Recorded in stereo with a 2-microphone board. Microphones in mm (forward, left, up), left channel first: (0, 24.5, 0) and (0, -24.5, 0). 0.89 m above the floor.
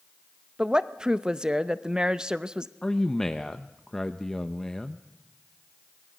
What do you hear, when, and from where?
0.6 s a woman speaking: 15° right (ahead or behind), 0.7 m
2.8 s a man speaking: 10° left (ahead or behind), 0.6 m